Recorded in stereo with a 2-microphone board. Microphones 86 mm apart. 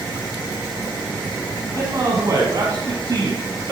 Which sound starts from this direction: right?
A man speaking, at 1.8 s.